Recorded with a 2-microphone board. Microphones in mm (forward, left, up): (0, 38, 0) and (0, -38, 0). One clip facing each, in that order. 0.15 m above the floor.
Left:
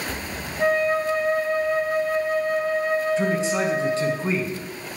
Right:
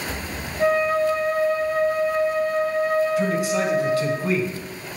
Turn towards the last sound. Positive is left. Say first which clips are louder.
# right 1 dB
turn(degrees=30)  # may be behind; listen again after turning